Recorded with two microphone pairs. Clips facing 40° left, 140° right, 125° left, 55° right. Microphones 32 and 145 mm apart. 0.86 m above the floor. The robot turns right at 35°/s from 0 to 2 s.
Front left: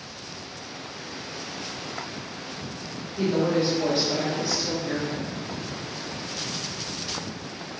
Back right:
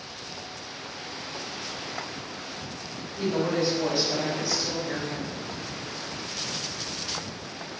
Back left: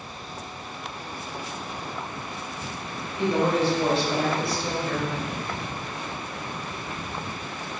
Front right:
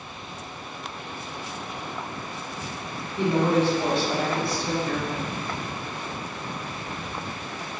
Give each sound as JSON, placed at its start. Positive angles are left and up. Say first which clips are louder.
{"t": 3.2, "sound": "a woman speaking", "louder": "front left 3 dB, front right 1 dB", "azimuth_deg": -30, "distance_m": 1.5}